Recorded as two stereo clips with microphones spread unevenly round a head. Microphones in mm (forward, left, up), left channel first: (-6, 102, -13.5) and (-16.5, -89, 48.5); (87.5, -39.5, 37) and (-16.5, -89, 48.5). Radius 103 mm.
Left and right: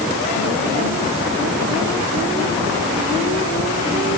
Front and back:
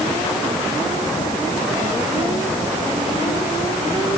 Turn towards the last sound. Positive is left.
No sound to turn to.